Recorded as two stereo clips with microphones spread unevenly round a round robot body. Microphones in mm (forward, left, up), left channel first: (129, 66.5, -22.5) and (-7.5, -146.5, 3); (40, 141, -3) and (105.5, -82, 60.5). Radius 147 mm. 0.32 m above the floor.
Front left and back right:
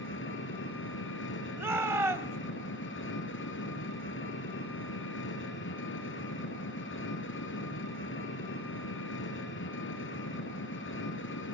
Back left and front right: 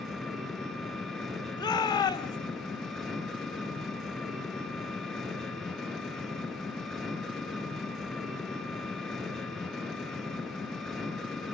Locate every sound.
0.0 s an engine running: 20° left, 3.5 m
1.6 s a shout: 155° left, 1.6 m